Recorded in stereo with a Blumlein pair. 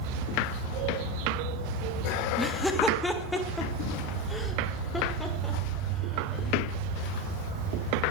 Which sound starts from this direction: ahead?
Laughter, at 2.4 s.